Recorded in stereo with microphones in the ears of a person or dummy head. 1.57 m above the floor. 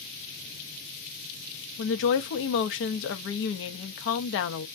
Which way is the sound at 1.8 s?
70° left (ahead or behind).